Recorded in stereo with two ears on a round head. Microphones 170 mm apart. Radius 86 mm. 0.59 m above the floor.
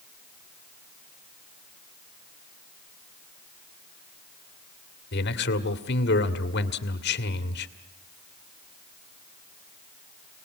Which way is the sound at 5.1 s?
55° left (ahead or behind).